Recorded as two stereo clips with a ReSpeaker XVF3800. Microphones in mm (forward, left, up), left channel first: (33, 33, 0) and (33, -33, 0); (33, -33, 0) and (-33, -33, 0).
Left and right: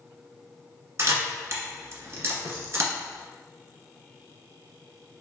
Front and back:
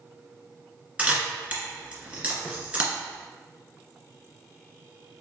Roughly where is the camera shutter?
Right.